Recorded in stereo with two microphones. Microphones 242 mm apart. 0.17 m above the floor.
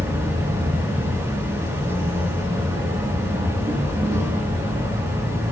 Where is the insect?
10° right (ahead or behind), 5.5 m.